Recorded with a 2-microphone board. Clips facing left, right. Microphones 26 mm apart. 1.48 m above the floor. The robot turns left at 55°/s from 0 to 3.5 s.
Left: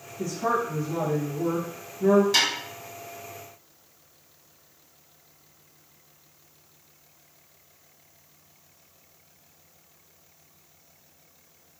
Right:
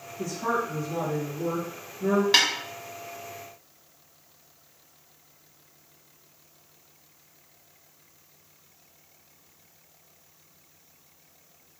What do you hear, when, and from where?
0.2 s a woman speaking: straight behind, 1.3 m; by 2.2 s 70° left, 1.3 m
2.3 s a snare drum: 35° right (ahead or behind), 0.9 m; by 2.5 s 30° right (ahead or behind), 0.9 m